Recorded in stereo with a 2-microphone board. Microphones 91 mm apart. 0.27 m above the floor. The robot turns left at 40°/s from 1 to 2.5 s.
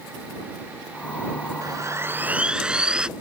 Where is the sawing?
135° right; by 3.1 s 170° right.